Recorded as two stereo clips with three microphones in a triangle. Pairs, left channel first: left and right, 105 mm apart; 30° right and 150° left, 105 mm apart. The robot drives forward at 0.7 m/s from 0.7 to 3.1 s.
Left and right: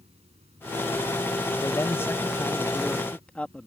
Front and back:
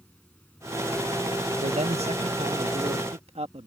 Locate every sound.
0.0 s running water: 105° right; by 3.7 s 110° right
1.6 s a man speaking: 150° left; by 3.7 s 170° left